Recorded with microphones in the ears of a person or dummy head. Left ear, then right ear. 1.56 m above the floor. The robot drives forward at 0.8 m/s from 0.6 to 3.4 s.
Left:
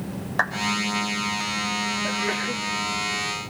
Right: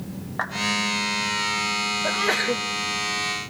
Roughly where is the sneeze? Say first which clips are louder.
Right 3 dB; right.